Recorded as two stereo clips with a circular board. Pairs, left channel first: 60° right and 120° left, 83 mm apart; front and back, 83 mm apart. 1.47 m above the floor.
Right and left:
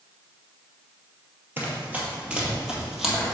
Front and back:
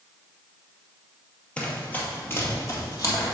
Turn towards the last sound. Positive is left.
turn(degrees=30)